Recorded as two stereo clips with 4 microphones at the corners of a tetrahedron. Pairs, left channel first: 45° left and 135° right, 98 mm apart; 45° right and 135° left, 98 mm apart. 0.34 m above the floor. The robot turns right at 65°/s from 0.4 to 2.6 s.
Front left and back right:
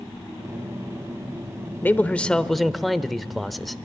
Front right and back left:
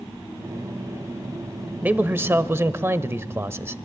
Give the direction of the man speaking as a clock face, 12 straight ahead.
9 o'clock.